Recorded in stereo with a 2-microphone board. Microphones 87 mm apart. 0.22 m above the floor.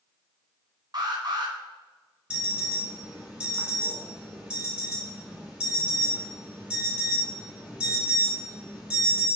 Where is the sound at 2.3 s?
10° right (ahead or behind), 2.5 m.